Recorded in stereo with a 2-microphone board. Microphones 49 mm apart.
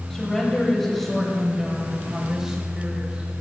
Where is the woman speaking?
10° left (ahead or behind), 4 m; by 3.3 s 20° right (ahead or behind), 3.5 m.